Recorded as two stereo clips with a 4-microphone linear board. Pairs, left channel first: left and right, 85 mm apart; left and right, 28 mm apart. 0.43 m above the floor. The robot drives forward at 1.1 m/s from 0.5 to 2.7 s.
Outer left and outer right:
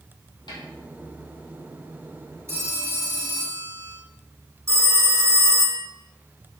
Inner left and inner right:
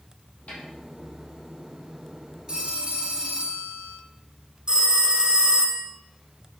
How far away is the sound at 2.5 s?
About 1.4 m.